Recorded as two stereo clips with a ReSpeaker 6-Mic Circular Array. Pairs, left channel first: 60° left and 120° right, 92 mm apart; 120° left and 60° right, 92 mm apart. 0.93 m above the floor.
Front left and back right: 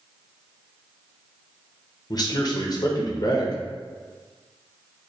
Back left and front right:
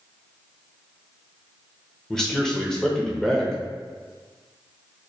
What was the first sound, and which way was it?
A man speaking, 35° left.